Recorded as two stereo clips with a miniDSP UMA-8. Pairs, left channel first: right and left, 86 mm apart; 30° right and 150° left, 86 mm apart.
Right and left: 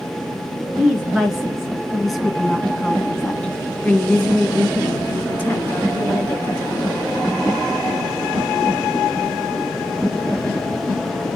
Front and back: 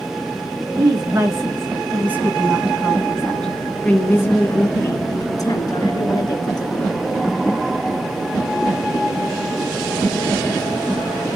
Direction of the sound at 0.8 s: 170° left.